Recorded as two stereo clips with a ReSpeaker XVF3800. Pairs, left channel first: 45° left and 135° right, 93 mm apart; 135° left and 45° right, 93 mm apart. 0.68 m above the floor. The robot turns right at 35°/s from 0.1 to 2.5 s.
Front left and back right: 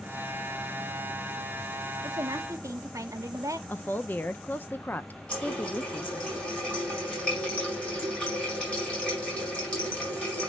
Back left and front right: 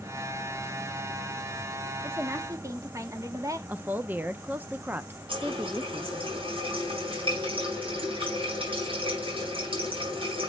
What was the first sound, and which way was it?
A woman speaking, 105° right.